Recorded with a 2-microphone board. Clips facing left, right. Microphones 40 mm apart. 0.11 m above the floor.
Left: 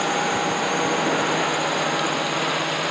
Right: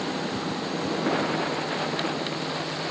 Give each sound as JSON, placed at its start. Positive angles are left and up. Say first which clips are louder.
{"t": 0.0, "sound": "a drone", "louder": "left 7 dB", "side_deg": 80}